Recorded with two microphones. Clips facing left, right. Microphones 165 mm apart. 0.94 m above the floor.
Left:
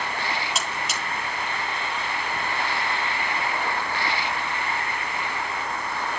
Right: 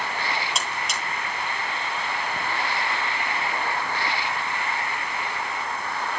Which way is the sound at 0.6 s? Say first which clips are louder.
Even; centre (ahead or behind).